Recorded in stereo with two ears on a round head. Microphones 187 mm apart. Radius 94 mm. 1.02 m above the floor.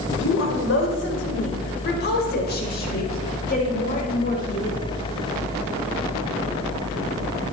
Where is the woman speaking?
65° left (ahead or behind), 4.5 m; by 4.8 s 35° left (ahead or behind), 5.5 m.